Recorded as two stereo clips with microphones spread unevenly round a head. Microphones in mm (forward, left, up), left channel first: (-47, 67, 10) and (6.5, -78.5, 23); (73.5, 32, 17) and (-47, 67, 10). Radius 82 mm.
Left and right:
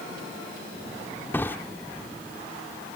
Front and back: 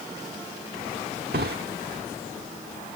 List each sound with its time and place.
1.3 s a drawer: 170° right